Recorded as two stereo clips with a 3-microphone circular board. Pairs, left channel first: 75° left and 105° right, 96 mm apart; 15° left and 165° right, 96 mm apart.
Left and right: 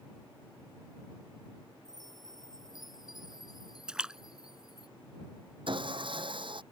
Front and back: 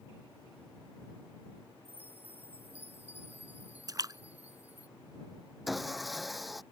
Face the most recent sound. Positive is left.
turn(degrees=-75)